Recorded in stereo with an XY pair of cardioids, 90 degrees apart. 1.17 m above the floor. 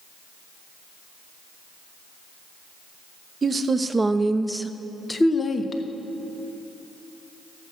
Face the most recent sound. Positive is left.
turn(degrees=40)